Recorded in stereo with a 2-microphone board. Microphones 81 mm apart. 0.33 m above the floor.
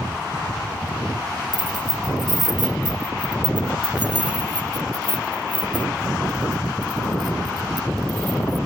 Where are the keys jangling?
60° right (ahead or behind).